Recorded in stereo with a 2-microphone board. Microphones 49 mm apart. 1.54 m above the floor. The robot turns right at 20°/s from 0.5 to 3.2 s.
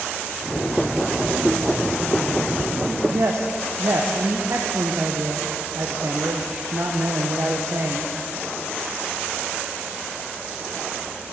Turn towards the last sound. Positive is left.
turn(degrees=-65)  # may be behind; listen again after turning